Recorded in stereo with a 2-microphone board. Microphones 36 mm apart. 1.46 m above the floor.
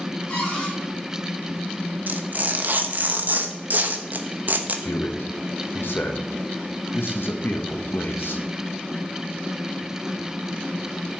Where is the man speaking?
70° left (ahead or behind), 1.5 m.